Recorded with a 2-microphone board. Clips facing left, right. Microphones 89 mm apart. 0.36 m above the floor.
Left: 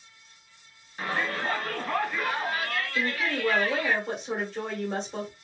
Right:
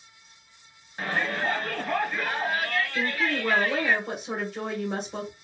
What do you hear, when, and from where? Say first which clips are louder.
1.0 s a shout: right 2 dB; 40° right (ahead or behind), 3 m
3.0 s a woman speaking: right 1 dB; 10° right (ahead or behind), 1.7 m